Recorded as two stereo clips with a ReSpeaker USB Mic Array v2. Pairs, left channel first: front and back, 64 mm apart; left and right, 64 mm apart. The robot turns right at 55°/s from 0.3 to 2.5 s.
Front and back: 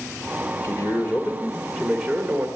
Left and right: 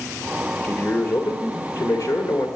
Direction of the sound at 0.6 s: 30° left.